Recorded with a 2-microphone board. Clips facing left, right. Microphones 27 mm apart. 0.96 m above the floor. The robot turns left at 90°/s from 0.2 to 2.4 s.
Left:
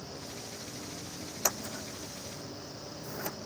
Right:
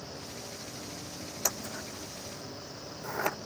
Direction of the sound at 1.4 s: 10° left (ahead or behind).